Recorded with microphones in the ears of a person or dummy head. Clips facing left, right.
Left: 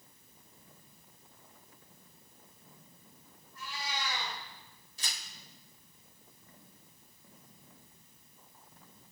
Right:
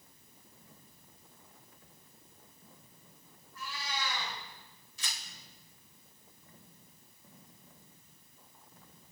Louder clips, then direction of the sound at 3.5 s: Even; 65° right (ahead or behind).